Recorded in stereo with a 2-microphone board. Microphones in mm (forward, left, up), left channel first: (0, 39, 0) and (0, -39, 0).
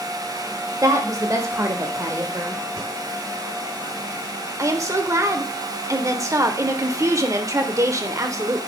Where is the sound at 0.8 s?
45° right (ahead or behind), 1.7 m; by 2.6 s 30° right (ahead or behind), 1.5 m.